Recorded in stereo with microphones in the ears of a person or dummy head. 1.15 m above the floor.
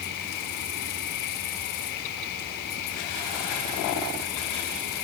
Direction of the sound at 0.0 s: 60° left (ahead or behind).